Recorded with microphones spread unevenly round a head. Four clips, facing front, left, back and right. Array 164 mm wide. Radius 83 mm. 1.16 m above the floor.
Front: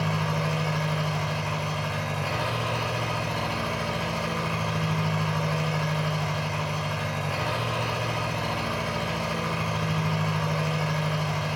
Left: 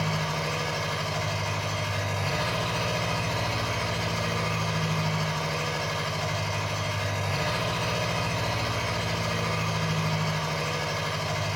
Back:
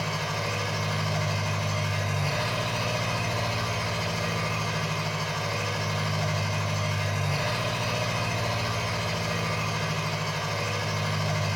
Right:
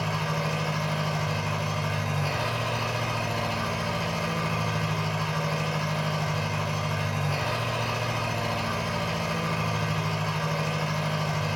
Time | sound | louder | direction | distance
0.0 | an engine running | even, front 3 dB | 65° right | 1.0 m